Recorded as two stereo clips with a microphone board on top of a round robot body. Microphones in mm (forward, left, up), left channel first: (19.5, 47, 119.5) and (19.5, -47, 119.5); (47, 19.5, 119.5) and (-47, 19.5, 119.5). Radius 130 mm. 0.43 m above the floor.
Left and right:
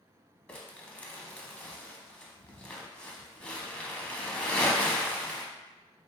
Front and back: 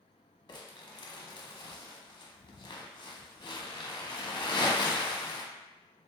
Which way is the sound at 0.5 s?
15° left.